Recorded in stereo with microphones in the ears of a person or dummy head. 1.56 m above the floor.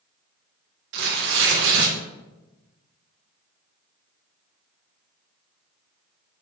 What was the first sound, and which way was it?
Tearing paper, 55° right (ahead or behind).